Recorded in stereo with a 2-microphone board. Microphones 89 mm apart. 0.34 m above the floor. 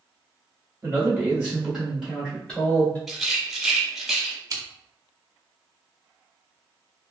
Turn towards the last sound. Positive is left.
turn(degrees=-40)  # may be behind; listen again after turning